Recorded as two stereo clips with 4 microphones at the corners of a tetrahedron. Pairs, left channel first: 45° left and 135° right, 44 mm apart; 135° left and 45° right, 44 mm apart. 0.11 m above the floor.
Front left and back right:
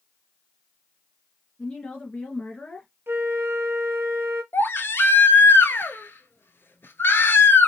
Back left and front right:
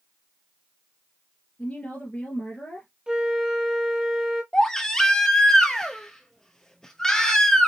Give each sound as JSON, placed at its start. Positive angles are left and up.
{"t": 1.6, "sound": "a woman speaking", "azimuth_deg": 95, "distance_m": 1.9}
{"t": 3.1, "sound": "a flute", "azimuth_deg": -120, "distance_m": 1.0}
{"t": 4.5, "sound": "a baby crying", "azimuth_deg": 60, "distance_m": 0.6}